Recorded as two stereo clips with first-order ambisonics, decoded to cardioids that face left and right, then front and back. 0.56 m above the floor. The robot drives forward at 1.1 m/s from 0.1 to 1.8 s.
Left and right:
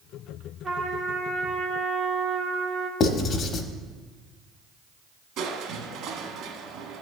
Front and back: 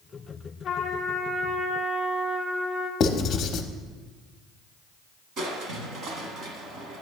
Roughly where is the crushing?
Behind right.